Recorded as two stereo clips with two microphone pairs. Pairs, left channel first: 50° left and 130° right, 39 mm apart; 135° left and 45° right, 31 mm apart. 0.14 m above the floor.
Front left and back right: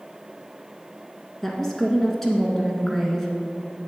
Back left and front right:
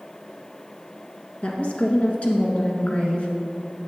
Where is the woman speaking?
120° left, 1.7 m.